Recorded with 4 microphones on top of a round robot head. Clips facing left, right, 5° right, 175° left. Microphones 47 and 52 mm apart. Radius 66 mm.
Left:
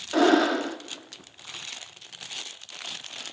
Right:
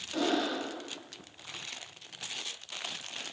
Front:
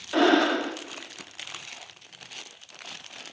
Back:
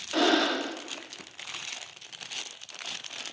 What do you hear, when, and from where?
0.1 s breathing: 65° left, 0.9 m